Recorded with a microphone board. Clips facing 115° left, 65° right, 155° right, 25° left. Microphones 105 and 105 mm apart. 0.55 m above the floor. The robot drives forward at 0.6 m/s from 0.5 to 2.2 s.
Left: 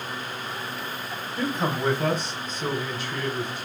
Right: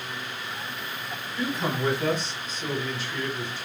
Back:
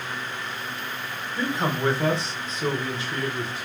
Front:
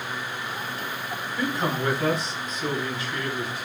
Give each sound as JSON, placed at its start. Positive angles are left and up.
{"t": 1.4, "sound": "a man speaking", "azimuth_deg": 135, "distance_m": 1.2}